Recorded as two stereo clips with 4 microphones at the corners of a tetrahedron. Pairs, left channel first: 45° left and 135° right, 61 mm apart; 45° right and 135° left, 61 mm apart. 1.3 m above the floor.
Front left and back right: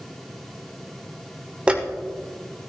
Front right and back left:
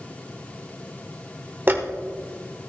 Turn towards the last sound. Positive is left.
turn(degrees=165)